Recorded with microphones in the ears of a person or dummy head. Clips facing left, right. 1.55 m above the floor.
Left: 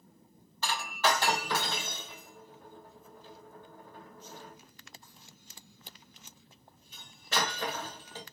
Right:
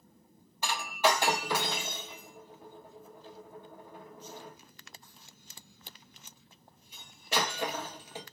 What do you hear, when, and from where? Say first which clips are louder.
0.6 s breaking glass: right 2 dB; 15° right (ahead or behind), 1.0 m